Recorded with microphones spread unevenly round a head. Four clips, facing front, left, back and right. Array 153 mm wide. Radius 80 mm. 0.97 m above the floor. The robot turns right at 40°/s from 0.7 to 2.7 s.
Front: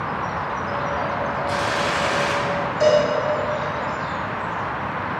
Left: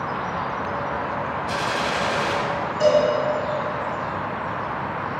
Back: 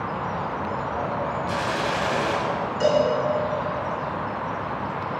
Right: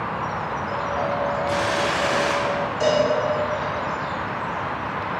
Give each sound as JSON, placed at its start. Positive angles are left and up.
{"t": 1.5, "sound": "a gunshot", "azimuth_deg": 90, "distance_m": 2.5}
{"t": 2.8, "sound": "a cowbell", "azimuth_deg": 170, "distance_m": 4.0}